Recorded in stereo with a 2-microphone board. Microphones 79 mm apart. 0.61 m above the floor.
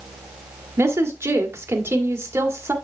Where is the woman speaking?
35° right (ahead or behind), 1.8 m.